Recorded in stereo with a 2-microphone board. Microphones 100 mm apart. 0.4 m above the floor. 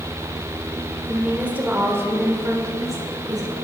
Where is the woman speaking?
10° right (ahead or behind), 1.9 m; by 3.5 s 40° right (ahead or behind), 2.0 m.